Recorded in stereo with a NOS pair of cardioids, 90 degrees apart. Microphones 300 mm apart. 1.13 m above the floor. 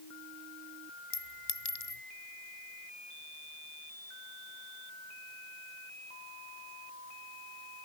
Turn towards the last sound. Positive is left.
turn(degrees=40)